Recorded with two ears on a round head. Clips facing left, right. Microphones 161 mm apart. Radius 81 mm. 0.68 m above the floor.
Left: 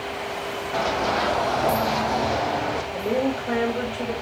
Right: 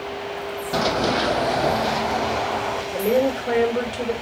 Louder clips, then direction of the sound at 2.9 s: Right 5 dB; 45° right (ahead or behind).